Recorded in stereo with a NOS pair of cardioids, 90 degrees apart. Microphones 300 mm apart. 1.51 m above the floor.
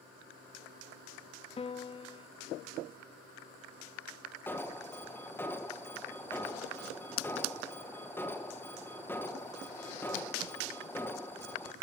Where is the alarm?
5° left, 1.8 m.